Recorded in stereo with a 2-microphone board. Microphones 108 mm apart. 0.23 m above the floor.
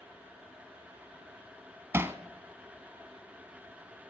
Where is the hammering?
25° right (ahead or behind), 0.6 m.